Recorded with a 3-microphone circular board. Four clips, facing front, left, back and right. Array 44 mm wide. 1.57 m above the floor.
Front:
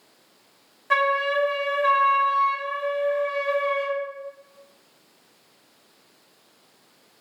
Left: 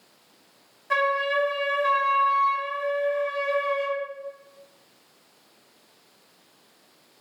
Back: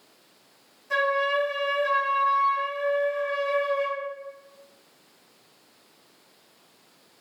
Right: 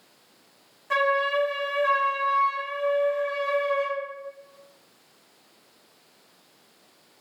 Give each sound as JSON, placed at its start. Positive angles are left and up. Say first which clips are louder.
{"t": 0.9, "sound": "a flute", "louder": "even, front 2 dB", "azimuth_deg": 5, "distance_m": 0.7}